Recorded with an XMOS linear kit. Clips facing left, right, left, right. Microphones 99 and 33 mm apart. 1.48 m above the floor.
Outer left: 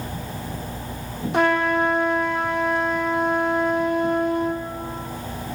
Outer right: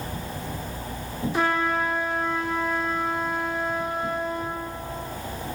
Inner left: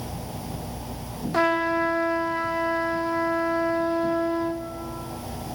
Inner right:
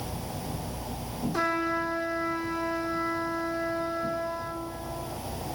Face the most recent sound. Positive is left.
turn(degrees=65)  # may be behind; listen again after turning